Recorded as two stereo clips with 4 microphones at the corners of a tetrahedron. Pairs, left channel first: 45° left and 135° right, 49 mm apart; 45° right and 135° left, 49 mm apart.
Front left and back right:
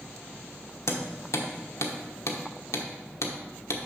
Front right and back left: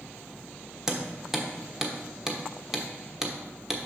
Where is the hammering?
55° left, 1.1 m.